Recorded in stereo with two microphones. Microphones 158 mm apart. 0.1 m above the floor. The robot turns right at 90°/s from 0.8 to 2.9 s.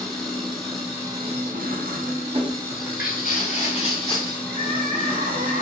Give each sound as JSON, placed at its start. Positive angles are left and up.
{"t": 0.0, "sound": "an engine running", "azimuth_deg": 180, "distance_m": 1.0}
{"t": 2.7, "sound": "footsteps", "side_deg": 55, "distance_m": 1.0}
{"t": 4.5, "sound": "crying", "side_deg": -65, "distance_m": 0.6}